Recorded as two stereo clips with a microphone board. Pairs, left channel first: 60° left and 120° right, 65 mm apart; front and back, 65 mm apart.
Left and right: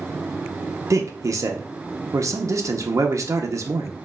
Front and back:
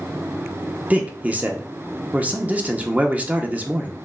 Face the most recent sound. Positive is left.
turn(degrees=-115)